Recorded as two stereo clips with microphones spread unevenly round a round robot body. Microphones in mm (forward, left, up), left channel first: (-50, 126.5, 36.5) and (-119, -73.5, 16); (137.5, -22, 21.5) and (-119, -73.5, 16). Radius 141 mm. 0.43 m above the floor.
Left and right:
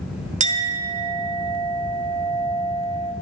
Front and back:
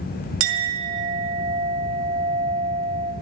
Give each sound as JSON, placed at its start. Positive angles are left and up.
{"t": 0.4, "sound": "a clink", "azimuth_deg": -155, "distance_m": 1.2}